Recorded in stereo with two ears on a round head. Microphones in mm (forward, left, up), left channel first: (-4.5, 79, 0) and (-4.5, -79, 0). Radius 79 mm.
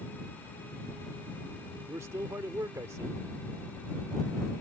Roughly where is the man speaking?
Centre.